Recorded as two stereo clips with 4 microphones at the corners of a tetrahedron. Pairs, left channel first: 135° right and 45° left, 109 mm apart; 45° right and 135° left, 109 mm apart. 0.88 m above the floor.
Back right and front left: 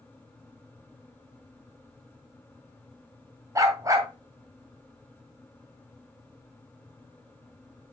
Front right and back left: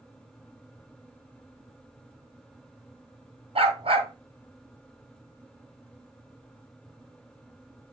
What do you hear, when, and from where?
3.5 s a dog barking: 105° left, 3 m